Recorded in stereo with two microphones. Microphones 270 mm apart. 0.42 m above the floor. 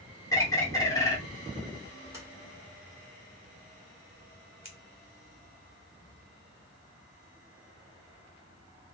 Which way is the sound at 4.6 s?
50° left (ahead or behind).